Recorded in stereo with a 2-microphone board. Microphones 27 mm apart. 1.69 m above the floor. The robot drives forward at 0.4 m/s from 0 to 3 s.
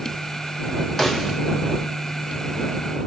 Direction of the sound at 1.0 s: 10° left (ahead or behind).